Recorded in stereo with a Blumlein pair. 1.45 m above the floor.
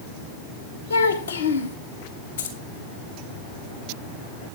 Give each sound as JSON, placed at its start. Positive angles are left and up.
{"t": 0.9, "sound": "a child speaking", "azimuth_deg": 70, "distance_m": 1.5}
{"t": 2.4, "sound": "keys jangling", "azimuth_deg": 65, "distance_m": 3.5}